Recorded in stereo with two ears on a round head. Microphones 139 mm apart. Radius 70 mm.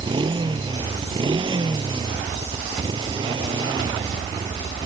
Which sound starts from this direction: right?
A motorcycle, at 0.0 s.